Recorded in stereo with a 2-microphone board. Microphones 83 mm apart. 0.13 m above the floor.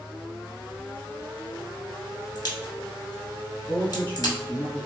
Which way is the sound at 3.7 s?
20° left (ahead or behind).